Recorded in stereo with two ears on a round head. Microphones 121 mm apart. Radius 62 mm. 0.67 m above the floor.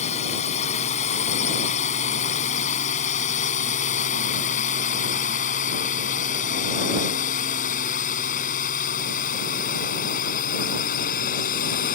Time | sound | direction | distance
0.0 | a drone | 55° left (ahead or behind) | ?